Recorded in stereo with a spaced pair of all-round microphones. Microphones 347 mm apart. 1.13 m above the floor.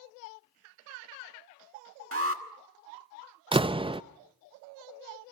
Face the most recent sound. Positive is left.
turn(degrees=-15)  # may be behind; listen again after turning